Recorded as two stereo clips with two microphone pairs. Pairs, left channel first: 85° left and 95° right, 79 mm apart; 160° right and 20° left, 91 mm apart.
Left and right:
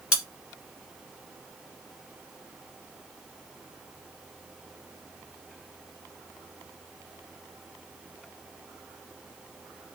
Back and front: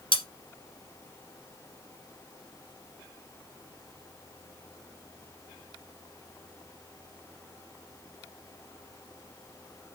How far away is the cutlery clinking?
About 1.6 m.